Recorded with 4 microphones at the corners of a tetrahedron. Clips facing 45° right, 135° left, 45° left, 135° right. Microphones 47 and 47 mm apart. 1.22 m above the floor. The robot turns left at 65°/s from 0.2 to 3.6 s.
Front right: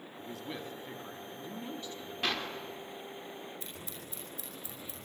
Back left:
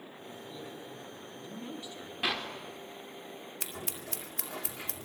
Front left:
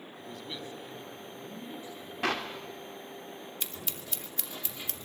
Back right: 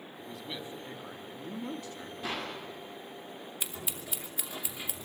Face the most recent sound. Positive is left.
turn(degrees=150)